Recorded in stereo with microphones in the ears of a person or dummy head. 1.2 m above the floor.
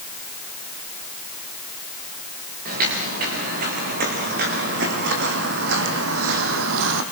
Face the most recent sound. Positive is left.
turn(degrees=-65)  # may be behind; listen again after turning